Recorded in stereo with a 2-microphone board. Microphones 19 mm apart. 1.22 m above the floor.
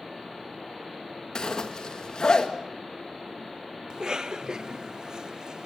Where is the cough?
35° right (ahead or behind), 0.8 m.